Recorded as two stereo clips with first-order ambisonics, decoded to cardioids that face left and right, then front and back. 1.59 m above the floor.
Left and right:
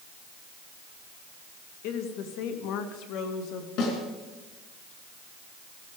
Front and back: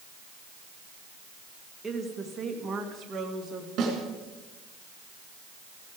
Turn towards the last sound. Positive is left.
turn(degrees=130)